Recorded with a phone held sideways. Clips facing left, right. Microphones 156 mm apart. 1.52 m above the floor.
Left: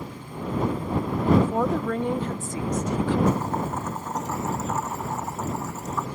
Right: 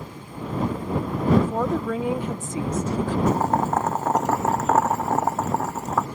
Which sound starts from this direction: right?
Boiling, at 3.3 s.